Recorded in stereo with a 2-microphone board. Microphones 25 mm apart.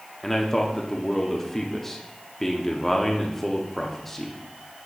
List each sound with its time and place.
0.2 s a man speaking: 10° left (ahead or behind), 0.7 m